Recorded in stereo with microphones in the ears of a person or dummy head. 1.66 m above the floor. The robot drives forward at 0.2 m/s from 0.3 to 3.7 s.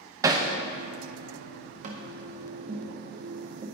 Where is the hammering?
25° right (ahead or behind), 0.6 m.